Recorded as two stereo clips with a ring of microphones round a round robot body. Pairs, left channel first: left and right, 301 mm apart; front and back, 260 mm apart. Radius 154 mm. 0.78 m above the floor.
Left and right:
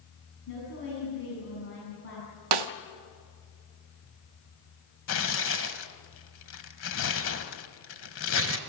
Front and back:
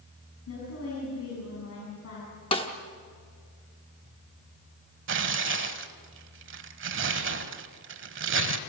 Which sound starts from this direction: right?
A snare drum, at 2.5 s.